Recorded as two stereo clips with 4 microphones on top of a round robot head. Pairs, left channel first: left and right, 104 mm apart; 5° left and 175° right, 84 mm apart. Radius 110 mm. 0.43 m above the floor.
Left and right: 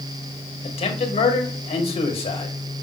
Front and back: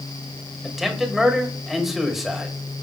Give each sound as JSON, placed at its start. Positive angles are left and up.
{"t": 0.6, "sound": "a man speaking", "azimuth_deg": 100, "distance_m": 2.0}